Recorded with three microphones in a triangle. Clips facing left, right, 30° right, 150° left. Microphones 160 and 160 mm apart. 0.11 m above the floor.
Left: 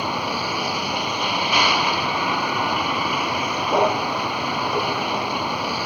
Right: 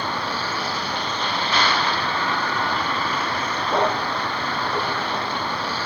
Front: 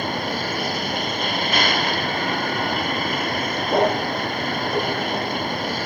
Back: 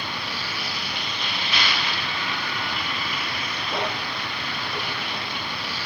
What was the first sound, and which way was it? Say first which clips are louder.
A vehicle: left 2 dB, front 8 dB; 10° left.